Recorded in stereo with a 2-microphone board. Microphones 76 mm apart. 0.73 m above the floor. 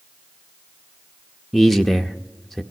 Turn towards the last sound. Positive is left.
turn(degrees=0)  # may be behind; listen again after turning